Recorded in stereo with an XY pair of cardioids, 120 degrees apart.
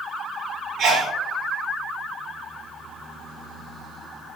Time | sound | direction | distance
0.8 | a sneeze | 60° right | 0.7 m